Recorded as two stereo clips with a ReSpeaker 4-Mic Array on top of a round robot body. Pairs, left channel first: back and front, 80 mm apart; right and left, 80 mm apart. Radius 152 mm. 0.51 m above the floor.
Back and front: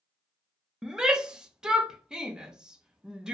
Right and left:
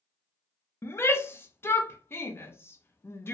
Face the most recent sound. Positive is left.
turn(degrees=-75)